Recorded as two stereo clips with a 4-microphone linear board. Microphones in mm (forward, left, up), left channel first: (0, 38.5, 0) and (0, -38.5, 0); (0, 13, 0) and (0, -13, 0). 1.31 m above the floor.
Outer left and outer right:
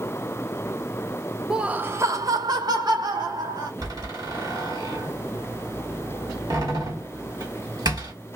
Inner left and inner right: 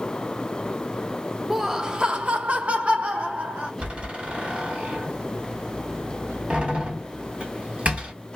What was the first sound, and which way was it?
Laughter, 5° right (ahead or behind).